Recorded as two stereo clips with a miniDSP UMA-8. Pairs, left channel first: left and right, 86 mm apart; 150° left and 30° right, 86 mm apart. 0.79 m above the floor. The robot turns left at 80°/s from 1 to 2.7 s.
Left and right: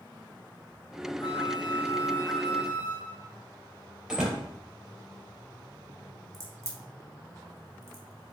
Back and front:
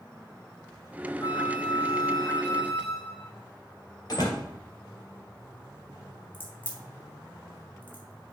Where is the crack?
140° right, 1.9 m.